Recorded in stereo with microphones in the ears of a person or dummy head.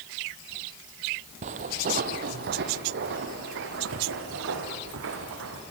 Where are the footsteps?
35° right (ahead or behind), 1.5 m; by 5.6 s 70° right (ahead or behind), 3.5 m.